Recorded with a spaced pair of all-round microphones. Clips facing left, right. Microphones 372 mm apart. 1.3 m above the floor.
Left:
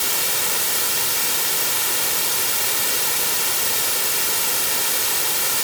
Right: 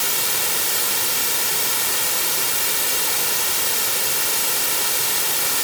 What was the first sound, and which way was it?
Only background noise.